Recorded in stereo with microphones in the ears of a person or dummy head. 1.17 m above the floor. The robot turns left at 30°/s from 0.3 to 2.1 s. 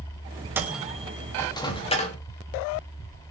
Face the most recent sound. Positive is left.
turn(degrees=35)  # may be behind; listen again after turning